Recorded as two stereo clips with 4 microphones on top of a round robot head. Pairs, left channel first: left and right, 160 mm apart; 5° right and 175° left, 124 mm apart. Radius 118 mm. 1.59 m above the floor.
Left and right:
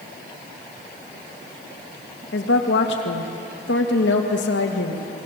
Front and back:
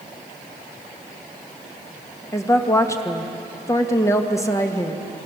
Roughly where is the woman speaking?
Ahead left.